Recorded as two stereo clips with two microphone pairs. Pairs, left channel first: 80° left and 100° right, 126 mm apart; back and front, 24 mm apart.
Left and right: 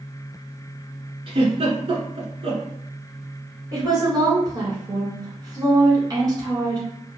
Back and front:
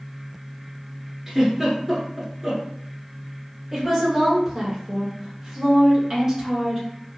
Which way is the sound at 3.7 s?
60° right.